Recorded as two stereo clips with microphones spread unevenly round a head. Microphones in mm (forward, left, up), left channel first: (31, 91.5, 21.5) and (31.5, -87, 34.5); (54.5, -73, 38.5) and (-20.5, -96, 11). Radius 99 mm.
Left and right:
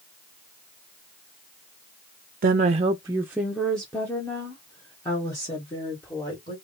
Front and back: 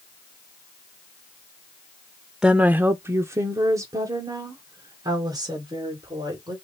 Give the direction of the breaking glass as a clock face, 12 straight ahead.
I don't hear breaking glass.